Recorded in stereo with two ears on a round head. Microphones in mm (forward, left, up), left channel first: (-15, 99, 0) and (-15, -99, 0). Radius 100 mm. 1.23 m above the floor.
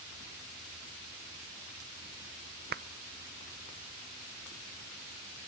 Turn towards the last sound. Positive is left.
turn(degrees=-45)  # may be behind; listen again after turning